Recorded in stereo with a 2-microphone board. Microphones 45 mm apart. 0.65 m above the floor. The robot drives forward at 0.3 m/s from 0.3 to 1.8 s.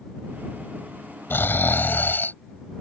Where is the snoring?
55° left (ahead or behind); by 2.3 s 50° left (ahead or behind).